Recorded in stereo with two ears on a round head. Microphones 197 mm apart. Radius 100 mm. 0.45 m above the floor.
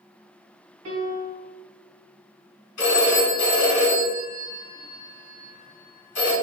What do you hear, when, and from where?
0.8 s a piano: 60° right (ahead or behind), 1.8 m
2.8 s a phone ringing: 70° left (ahead or behind), 2.0 m